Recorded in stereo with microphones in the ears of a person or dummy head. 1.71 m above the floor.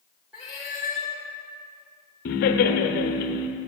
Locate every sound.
0.3 s a cat meowing: centre (ahead or behind), 0.9 m
2.2 s laughter: 55° left (ahead or behind), 0.9 m